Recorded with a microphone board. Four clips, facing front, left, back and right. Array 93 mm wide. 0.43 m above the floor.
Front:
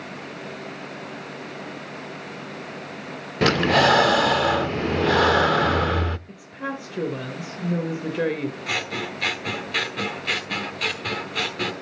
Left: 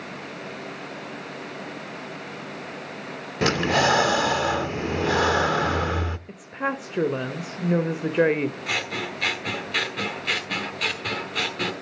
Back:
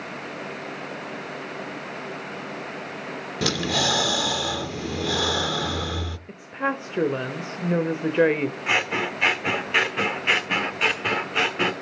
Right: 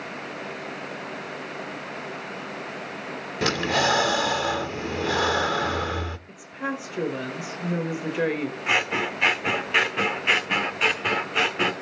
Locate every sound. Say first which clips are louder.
3.4 s breathing: left 2 dB, front 8 dB; 5° left, 0.5 m
6.3 s a woman speaking: left 4 dB, back 5 dB; 140° left, 1.3 m
8.7 s scissors: right 4 dB, back 4 dB; 140° right, 1.0 m